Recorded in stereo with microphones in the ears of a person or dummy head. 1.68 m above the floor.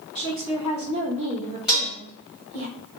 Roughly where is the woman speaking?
Centre.